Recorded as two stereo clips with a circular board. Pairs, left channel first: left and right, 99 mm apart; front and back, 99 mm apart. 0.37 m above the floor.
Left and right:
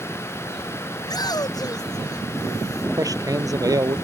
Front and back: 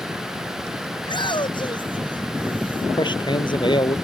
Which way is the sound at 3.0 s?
35° right.